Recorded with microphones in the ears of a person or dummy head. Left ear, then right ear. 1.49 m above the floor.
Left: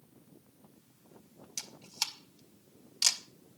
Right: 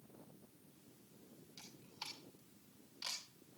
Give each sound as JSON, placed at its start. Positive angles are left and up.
{"t": 1.6, "sound": "a camera shutter", "side_deg": 85, "distance_m": 2.0}